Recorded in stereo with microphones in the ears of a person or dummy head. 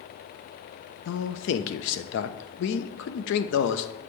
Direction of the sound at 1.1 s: 65° left (ahead or behind).